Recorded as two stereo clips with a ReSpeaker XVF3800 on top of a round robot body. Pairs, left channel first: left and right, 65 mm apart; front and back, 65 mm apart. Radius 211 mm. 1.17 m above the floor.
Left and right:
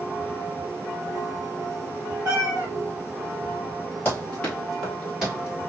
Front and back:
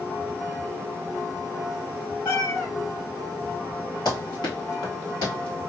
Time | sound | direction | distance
2.2 | a cat meowing | 50° right | 1.0 m
4.0 | running footsteps | 30° left | 2.0 m